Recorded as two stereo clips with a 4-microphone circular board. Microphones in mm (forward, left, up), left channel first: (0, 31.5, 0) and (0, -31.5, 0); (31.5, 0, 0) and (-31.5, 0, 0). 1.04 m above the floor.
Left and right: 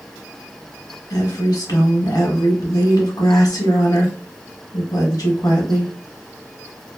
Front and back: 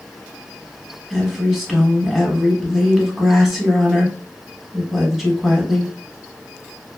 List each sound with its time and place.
1.1 s a woman speaking: 95° left, 1.1 m